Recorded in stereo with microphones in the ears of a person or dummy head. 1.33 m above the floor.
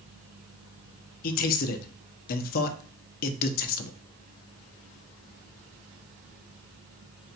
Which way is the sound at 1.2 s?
45° left (ahead or behind).